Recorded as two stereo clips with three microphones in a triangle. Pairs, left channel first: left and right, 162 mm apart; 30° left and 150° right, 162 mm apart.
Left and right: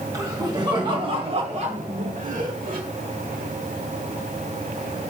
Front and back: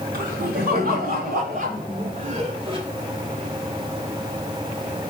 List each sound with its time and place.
0.1 s laughter: 155° right, 3.5 m; by 2.8 s 95° right, 2 m